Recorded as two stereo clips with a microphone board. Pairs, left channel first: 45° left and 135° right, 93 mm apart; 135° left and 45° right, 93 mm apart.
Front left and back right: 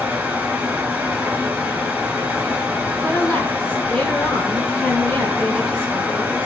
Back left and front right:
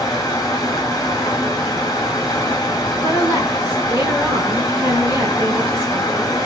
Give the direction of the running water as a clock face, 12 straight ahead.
7 o'clock.